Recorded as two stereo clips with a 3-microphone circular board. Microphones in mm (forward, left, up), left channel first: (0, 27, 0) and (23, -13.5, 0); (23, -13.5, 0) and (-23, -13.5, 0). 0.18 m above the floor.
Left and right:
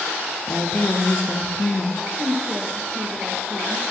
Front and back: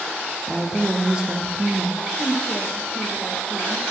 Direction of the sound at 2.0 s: 20° left.